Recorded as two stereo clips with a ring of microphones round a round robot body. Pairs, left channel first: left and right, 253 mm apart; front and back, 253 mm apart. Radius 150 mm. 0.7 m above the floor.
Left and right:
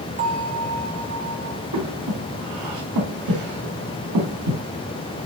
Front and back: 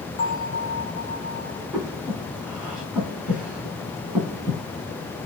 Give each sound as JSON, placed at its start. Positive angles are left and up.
{"t": 0.2, "sound": "a bell", "azimuth_deg": -30, "distance_m": 2.0}
{"t": 1.7, "sound": "breathing", "azimuth_deg": -95, "distance_m": 2.5}